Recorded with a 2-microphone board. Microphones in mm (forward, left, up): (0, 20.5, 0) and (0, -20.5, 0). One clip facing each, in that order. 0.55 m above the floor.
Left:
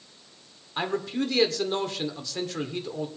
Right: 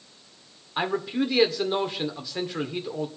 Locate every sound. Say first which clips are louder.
0.8 s a man speaking: right 2 dB; 15° right (ahead or behind), 1.9 m